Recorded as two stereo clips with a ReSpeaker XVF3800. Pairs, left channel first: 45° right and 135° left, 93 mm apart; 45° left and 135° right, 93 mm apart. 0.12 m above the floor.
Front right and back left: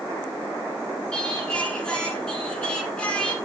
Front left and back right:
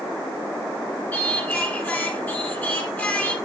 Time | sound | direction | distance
1.1 | singing | 15° left | 1.6 m